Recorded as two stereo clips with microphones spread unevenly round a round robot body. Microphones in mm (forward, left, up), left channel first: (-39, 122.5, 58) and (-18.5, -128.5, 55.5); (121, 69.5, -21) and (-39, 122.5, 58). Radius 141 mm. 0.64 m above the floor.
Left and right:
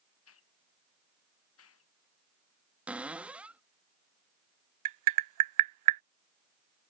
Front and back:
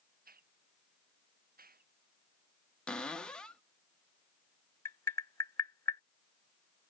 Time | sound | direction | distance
0.2 | a hiss | 130° left | ?
2.9 | a cupboard door | 5° right | ?
4.8 | tapping | 95° right | ?